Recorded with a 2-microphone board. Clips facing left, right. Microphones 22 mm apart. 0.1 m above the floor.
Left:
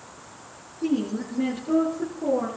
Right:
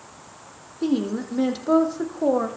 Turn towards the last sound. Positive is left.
turn(degrees=-75)  # may be behind; listen again after turning